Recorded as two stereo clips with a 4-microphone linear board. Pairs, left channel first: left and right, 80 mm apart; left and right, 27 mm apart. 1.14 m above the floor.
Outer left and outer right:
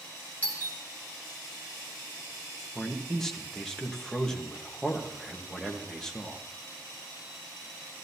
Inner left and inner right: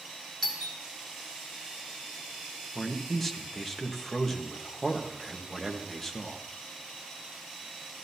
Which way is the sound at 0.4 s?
20° left (ahead or behind).